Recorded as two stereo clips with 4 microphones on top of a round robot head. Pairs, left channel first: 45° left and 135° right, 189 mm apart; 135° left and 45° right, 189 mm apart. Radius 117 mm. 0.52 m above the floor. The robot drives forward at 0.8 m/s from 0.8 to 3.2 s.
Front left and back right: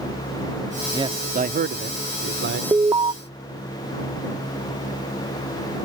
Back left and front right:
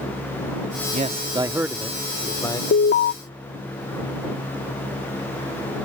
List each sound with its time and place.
0.9 s a man speaking: 75° right; by 2.6 s 150° right
2.7 s an alarm: 145° left; by 3.1 s 160° left